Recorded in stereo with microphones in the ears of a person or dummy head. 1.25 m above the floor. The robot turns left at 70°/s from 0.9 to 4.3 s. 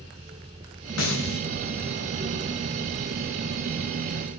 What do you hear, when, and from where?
1.0 s a snare drum: 80° left, 6 m; by 1.4 s 50° left, 6 m